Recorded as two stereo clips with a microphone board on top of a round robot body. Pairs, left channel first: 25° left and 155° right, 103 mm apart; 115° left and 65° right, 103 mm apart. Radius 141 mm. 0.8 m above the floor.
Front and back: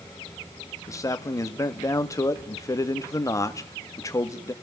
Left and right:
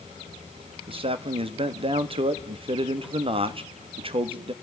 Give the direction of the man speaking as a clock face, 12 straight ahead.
1 o'clock.